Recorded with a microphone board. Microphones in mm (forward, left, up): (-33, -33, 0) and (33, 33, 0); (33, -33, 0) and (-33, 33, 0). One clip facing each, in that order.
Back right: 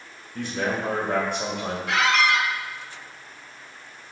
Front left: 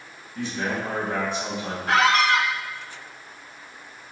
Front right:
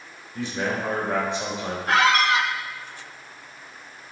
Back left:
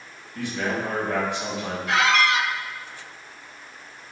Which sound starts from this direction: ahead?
A squeak, at 1.9 s.